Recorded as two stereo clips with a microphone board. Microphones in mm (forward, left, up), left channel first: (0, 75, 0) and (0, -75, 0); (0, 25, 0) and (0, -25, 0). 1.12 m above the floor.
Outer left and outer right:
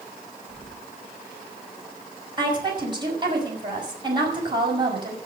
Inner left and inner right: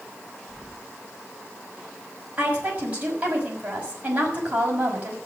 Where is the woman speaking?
30° right (ahead or behind), 6 m.